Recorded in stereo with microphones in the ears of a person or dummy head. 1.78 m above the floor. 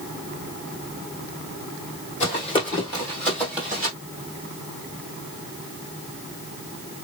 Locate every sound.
2.2 s running footsteps: 30° left (ahead or behind), 2.5 m; by 3.9 s 5° right (ahead or behind), 1.9 m